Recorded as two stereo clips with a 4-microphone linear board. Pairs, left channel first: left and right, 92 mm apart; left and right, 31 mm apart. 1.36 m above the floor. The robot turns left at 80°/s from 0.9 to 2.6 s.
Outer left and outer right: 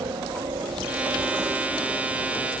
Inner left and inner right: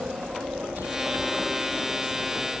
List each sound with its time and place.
0.0 s a helicopter: 60° right (ahead or behind); by 2.6 s 60° left (ahead or behind)